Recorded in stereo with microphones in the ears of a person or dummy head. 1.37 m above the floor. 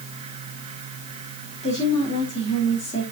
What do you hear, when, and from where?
1.6 s a woman speaking: 30° left (ahead or behind), 2.5 m